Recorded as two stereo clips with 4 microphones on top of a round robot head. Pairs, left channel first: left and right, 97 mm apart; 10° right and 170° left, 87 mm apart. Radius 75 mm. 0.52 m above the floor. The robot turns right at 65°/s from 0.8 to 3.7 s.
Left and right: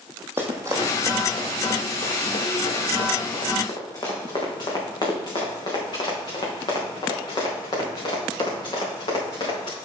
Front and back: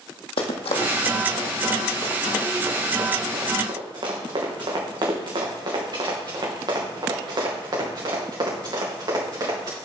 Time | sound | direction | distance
0.4 | running footsteps | 15° right | 1.6 m